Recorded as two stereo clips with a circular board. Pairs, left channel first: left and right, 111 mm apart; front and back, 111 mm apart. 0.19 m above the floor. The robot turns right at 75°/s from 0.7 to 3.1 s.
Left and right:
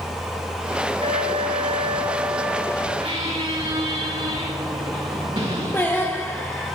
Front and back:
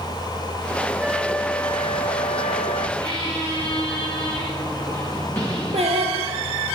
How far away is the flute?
About 0.7 m.